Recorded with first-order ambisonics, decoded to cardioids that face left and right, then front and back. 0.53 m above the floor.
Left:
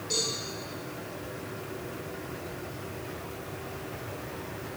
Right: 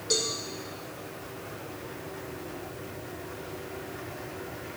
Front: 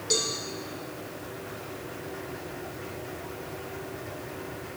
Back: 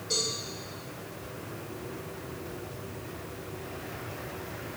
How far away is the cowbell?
About 1.5 m.